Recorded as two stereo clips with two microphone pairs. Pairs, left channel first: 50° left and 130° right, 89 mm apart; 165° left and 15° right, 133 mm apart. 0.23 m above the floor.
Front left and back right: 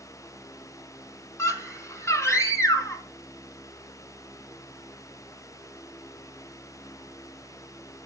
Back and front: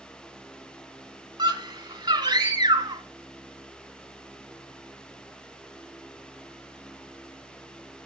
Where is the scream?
20° left, 1.9 m.